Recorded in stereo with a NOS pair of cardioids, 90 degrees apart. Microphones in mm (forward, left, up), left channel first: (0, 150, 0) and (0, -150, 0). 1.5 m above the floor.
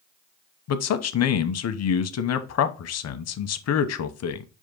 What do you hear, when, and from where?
0.7 s a man speaking: 60° left, 0.8 m